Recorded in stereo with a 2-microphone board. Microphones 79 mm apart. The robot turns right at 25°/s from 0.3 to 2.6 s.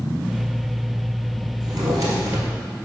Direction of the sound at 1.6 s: 55° right (ahead or behind).